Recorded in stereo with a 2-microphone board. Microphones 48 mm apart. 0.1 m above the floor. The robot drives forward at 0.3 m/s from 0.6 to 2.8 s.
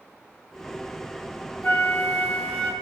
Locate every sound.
1.6 s a flute: 45° left (ahead or behind), 0.8 m; by 2.7 s 35° left (ahead or behind), 0.9 m